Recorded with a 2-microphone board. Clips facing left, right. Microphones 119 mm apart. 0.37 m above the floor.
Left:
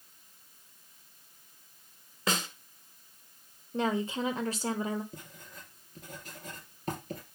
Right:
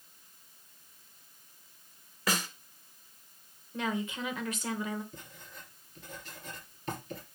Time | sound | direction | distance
2.3 | a snare drum | 25° left (ahead or behind) | 1.7 m
3.7 | a woman speaking | 30° left (ahead or behind) | 1.0 m
5.1 | writing | 45° left (ahead or behind) | 4 m